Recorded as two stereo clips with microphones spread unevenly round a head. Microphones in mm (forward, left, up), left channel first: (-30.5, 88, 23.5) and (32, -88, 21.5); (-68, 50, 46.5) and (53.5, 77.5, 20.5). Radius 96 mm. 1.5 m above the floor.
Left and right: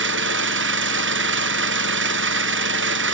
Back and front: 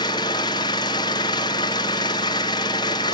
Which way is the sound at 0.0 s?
100° right.